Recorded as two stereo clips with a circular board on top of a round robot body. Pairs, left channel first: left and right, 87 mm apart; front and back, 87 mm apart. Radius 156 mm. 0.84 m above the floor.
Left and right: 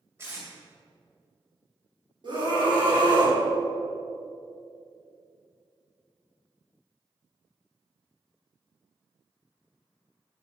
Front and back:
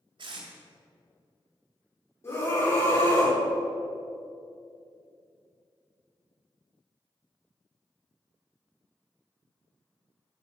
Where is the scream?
55° right, 4 m.